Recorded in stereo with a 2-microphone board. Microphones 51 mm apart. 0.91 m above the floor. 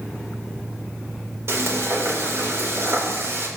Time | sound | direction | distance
1.5 | frying | 60° right (ahead or behind) | 3.5 m